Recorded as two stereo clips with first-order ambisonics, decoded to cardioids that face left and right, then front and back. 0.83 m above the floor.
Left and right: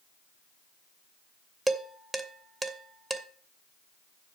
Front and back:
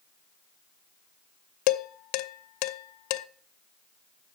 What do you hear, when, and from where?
1.7 s dishes clattering: 10° right, 0.7 m